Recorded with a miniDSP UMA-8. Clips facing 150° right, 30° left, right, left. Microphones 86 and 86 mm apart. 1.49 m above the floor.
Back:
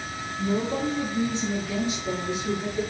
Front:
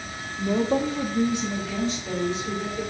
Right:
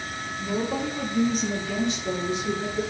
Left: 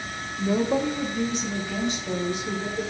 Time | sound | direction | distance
0.4 | a woman speaking | 35° left | 0.8 m